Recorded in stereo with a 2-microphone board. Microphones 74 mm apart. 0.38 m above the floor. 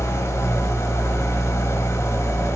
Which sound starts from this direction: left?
An engine running, at 0.0 s.